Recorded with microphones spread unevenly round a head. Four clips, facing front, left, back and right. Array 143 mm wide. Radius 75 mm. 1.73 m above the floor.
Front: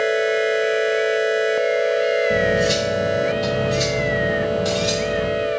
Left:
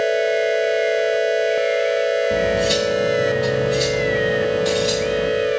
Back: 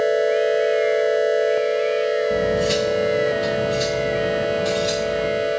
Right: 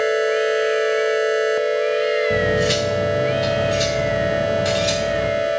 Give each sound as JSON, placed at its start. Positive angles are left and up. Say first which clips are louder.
{"t": 2.3, "sound": "cutlery clinking", "louder": "even, front 1 dB", "azimuth_deg": -60, "distance_m": 5.0}